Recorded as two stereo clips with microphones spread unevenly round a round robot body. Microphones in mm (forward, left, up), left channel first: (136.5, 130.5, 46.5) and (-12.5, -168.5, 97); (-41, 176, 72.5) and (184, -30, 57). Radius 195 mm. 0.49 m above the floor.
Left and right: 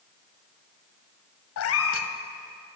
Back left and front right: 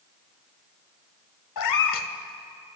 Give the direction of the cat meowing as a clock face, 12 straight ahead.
8 o'clock.